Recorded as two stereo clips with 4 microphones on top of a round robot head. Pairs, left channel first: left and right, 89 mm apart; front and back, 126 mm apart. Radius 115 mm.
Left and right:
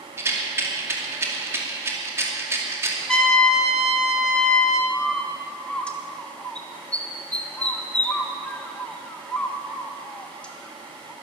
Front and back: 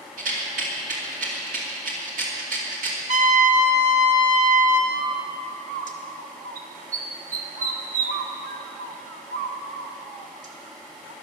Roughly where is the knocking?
I don't hear knocking.